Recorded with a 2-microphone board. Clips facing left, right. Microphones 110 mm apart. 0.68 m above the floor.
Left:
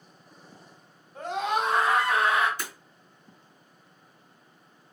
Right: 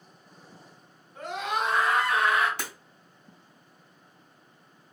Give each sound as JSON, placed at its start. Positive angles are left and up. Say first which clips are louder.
{"t": 1.1, "sound": "a scream", "louder": "left 3 dB", "side_deg": 35, "distance_m": 1.7}
{"t": 2.6, "sound": "breaking glass", "louder": "right 1 dB", "side_deg": -85, "distance_m": 2.0}